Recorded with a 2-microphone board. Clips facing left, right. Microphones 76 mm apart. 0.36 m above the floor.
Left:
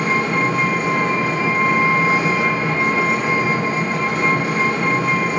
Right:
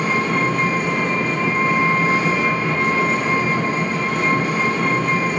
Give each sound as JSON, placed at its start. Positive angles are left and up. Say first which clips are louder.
{"t": 0.0, "sound": "an engine running", "louder": "left 1 dB", "side_deg": 60, "distance_m": 1.1}